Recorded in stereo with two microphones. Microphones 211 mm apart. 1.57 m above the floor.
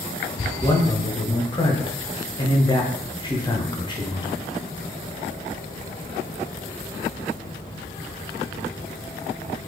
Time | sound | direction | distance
0.6 | a man speaking | 20° left (ahead or behind) | 0.9 m